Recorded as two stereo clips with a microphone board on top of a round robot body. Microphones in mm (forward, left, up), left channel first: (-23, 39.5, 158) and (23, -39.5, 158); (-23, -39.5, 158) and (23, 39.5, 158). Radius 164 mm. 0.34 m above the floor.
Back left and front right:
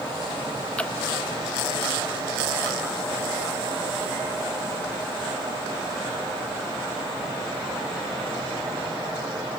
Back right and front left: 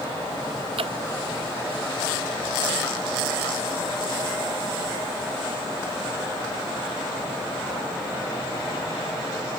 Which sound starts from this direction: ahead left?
Dripping, at 0.8 s.